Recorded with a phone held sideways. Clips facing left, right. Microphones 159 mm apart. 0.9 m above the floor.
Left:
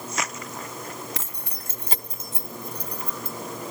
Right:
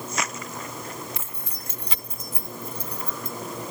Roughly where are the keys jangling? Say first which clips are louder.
Left 1 dB; left.